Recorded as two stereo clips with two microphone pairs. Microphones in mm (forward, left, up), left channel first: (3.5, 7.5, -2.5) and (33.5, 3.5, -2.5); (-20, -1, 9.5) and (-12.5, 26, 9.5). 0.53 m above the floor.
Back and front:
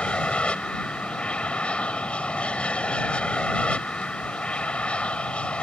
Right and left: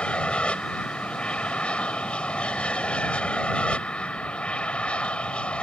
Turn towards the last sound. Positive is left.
turn(degrees=-145)